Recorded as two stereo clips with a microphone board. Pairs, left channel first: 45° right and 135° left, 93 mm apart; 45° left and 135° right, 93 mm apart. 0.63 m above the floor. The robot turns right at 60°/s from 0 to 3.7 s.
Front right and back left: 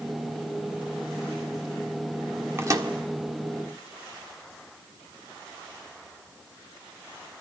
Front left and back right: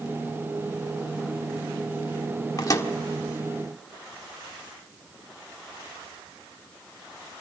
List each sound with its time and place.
2.6 s a microwave: 80° left, 1.6 m; by 2.9 s 100° left, 1.6 m